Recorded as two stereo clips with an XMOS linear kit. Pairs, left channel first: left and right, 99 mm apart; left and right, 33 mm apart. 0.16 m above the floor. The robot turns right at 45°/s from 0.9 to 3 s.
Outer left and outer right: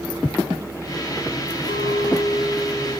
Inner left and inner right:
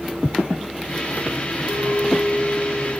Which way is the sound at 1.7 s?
125° left.